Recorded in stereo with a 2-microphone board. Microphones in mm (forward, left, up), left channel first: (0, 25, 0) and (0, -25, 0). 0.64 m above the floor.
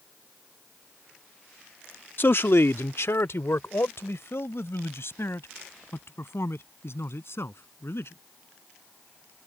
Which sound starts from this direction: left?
A man speaking, at 2.2 s.